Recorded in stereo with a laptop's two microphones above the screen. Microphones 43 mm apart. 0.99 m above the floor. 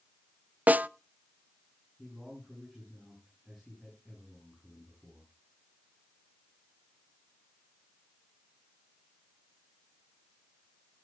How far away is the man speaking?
About 8.5 m.